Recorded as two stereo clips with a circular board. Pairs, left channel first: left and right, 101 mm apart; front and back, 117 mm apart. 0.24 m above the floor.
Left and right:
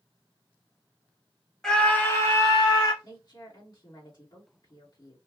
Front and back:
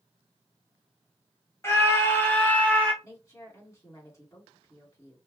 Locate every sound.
1.6 s a scream: 15° left, 1.3 m; by 2.9 s 75° left, 1.9 m
3.0 s a woman speaking: 60° left, 2 m